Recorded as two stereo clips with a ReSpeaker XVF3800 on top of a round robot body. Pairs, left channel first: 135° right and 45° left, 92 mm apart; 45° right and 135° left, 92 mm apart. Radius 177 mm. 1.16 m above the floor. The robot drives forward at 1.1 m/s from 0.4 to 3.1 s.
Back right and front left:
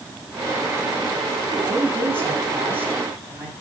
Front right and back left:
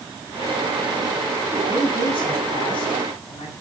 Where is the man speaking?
20° right, 9.5 m; by 3.5 s 25° right, 8 m.